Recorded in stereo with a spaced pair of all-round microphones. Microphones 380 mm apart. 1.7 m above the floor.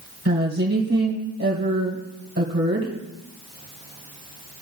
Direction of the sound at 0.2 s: 40° right (ahead or behind).